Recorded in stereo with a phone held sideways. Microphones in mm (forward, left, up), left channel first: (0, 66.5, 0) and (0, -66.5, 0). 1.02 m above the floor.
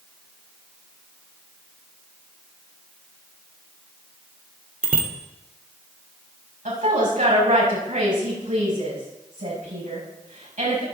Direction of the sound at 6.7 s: 80° right.